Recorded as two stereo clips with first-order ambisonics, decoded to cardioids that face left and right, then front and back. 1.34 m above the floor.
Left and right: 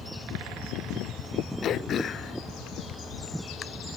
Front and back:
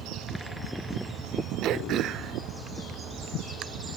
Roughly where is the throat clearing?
Behind left.